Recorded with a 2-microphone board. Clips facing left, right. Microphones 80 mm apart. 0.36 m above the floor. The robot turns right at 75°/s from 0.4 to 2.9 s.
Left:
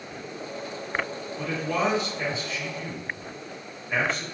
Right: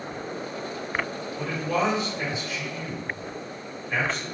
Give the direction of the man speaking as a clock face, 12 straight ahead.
4 o'clock.